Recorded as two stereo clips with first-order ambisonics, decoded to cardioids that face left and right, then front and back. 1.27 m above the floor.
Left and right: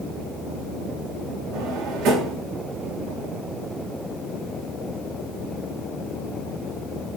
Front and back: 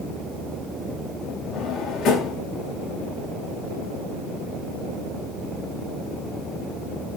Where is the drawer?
50° right, 3.5 m.